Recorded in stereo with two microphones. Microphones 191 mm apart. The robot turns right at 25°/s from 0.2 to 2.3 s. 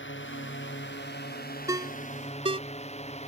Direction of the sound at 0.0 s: 95° left.